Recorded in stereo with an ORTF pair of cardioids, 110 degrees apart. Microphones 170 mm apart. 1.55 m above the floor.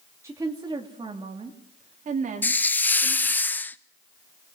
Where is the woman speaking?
15° right, 2.5 m; by 3.4 s 60° right, 3 m.